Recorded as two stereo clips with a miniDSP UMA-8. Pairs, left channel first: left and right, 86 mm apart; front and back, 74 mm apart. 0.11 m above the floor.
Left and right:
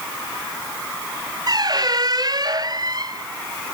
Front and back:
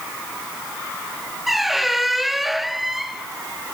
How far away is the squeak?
About 0.8 m.